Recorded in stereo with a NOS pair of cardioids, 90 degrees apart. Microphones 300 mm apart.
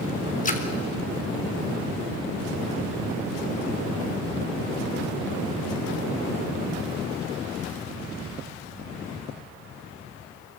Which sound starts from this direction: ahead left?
A splash, at 0.5 s.